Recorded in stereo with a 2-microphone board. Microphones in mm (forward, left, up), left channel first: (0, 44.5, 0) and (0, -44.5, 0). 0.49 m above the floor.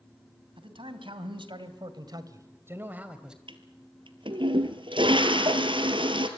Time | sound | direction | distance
0.6 | a man speaking | 75° right (ahead or behind) | 3 m
3.5 | a toilet flushing | 70° right (ahead or behind) | 1.8 m